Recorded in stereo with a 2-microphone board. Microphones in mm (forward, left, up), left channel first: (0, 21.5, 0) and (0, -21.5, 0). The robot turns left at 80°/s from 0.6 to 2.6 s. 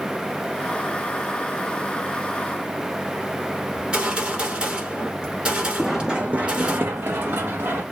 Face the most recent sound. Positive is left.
turn(degrees=-75)  # may be behind; listen again after turning